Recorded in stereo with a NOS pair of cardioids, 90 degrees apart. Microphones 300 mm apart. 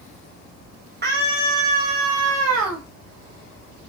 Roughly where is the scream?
Ahead right.